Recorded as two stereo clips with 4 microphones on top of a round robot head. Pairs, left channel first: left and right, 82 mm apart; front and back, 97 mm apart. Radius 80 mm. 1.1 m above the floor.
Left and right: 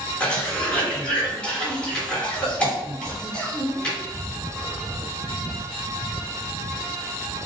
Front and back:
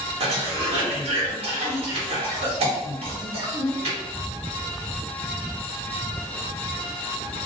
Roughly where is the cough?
Behind.